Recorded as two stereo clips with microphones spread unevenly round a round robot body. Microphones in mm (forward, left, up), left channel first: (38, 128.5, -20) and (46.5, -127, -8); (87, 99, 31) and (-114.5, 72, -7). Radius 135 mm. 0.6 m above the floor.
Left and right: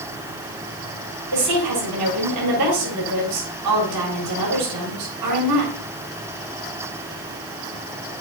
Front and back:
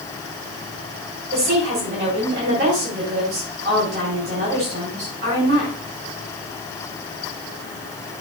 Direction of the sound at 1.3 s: 120° right.